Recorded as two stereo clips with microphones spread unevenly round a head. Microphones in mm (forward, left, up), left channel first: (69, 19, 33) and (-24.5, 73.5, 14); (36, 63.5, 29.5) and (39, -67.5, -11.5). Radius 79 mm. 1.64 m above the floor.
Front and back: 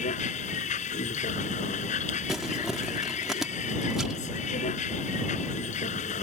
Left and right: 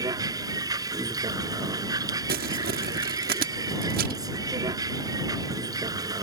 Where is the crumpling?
120° right.